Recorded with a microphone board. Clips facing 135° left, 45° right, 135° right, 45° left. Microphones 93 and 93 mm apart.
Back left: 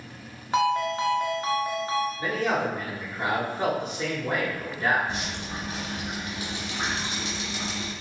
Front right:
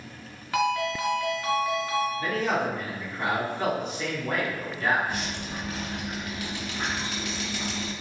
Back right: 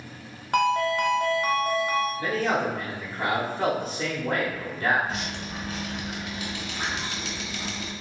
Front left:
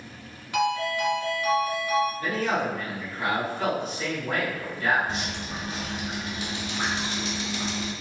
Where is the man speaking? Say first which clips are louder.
Even, back right 1 dB; 170° right, 1.1 m.